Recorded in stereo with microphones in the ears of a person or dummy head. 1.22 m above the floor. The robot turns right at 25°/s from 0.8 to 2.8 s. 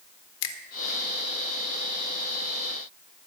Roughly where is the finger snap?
Left.